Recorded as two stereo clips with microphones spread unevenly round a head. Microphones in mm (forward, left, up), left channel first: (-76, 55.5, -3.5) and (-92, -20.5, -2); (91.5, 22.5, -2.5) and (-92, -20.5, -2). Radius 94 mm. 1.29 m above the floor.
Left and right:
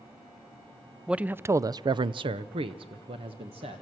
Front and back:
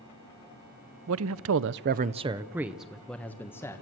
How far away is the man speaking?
About 0.7 m.